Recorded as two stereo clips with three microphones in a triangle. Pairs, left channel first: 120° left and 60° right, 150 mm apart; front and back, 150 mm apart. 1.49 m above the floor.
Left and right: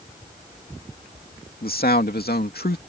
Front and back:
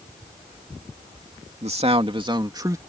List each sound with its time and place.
1.6 s a man speaking: 135° left; by 2.8 s 110° left